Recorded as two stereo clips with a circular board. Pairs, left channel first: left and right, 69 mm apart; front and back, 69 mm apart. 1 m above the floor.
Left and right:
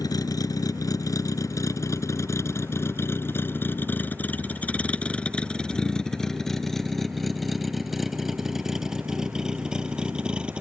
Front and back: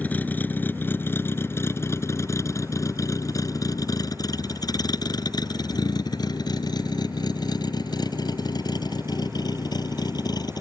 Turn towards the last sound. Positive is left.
turn(degrees=-15)